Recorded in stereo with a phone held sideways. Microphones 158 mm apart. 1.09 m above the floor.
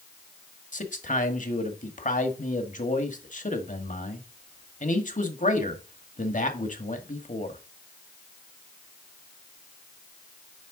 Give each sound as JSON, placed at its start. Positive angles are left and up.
{"t": 0.7, "sound": "a man speaking", "side_deg": 55, "distance_m": 1.6}